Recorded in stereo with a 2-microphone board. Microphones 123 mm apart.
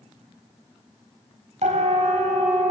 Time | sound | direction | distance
1.6 | a siren | 70° right (ahead or behind) | 5.5 m